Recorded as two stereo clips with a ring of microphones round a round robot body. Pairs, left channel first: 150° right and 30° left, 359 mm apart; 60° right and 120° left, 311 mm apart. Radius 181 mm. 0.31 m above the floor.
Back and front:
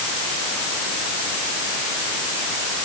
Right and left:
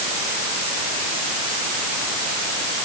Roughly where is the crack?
No crack in this recording.